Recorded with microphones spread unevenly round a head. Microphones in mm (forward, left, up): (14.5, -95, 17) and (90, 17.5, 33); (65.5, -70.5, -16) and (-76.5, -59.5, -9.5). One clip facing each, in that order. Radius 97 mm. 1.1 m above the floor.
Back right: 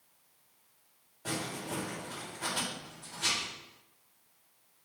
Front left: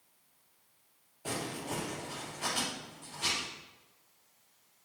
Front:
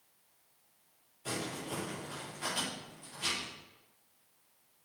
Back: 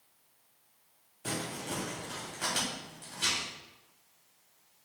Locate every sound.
1.2 s crumpling: 135° left, 3 m